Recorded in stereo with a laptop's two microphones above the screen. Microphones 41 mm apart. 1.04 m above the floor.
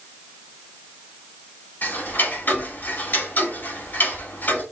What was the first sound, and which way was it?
Ticking, 60° left (ahead or behind).